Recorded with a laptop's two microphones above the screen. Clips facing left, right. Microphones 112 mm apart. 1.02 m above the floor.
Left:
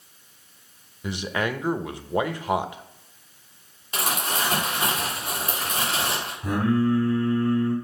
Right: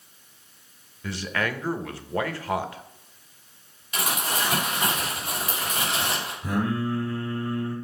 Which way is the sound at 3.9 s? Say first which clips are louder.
Left 1 dB; 35° left (ahead or behind).